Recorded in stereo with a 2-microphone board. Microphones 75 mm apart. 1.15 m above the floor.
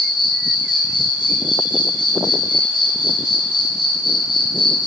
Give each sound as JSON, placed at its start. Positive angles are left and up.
{"t": 0.0, "sound": "an insect", "side_deg": 80, "distance_m": 0.7}